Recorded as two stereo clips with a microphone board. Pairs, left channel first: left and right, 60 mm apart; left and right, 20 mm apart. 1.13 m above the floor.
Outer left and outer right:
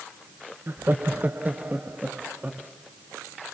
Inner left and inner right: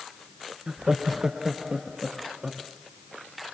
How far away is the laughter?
About 0.8 m.